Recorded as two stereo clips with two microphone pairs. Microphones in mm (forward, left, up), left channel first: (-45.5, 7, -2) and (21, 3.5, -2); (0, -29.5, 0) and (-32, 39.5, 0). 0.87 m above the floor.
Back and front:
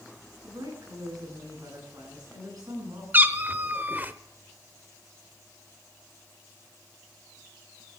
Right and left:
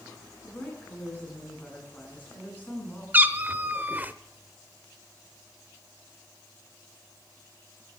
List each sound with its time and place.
0.4 s a woman speaking: straight ahead, 9.5 m
3.1 s a cat meowing: 55° left, 0.8 m